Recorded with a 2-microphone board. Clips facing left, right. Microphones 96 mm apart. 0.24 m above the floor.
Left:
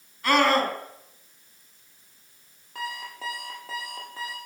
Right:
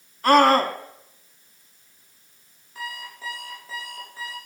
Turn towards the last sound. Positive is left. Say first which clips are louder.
# left 2 dB
turn(degrees=65)  # may be behind; listen again after turning